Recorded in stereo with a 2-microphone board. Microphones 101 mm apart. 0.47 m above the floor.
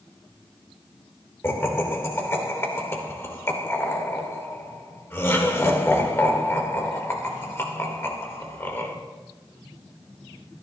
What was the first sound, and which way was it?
Laughter, 25° left (ahead or behind).